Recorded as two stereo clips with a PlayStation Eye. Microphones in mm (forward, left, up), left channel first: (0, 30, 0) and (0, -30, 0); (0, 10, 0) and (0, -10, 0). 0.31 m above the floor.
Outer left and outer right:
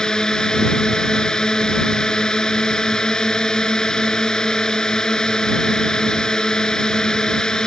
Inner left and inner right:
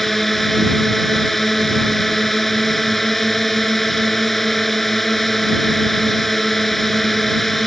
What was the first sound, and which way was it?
A drone, 10° left (ahead or behind).